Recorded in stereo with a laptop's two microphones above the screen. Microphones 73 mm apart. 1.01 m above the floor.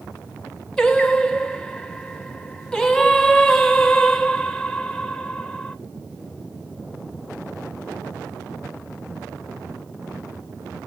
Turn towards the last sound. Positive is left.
turn(degrees=10)  # may be behind; listen again after turning